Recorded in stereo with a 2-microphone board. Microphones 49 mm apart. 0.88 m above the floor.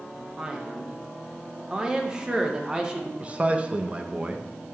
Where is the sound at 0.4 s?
15° right (ahead or behind), 0.7 m.